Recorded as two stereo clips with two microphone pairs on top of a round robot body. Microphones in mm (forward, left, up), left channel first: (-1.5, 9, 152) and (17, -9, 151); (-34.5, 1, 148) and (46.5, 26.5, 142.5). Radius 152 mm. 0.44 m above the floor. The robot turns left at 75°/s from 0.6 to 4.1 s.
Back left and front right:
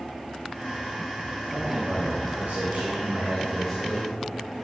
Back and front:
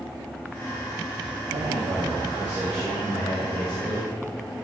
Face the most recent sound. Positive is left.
turn(degrees=-175)